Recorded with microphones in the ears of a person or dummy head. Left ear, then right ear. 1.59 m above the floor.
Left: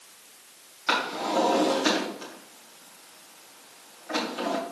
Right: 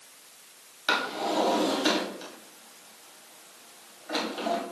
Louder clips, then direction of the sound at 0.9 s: Left 1 dB; 10° right (ahead or behind).